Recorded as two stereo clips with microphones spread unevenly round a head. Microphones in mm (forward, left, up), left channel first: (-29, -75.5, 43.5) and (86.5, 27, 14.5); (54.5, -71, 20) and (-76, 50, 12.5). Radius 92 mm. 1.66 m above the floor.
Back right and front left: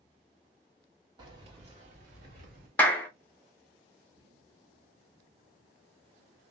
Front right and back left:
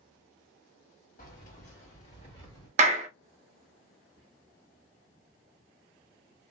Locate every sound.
1.2 s keys jangling: 20° right, 1.2 m; by 2.7 s 15° left, 1.6 m
2.8 s a clap: 165° left, 0.5 m
4.2 s whispering: 145° left, 0.8 m